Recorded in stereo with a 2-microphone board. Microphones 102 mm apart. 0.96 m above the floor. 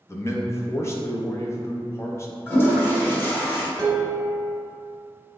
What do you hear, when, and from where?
0.1 s a man speaking: 30° left (ahead or behind), 0.5 m
2.5 s a toilet flushing: 25° left (ahead or behind), 1.0 m
3.8 s dishes clattering: 5° left (ahead or behind), 0.8 m